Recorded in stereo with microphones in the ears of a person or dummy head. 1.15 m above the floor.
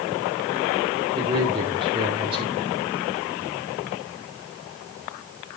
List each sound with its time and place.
1.1 s a man speaking: 25° right (ahead or behind), 2 m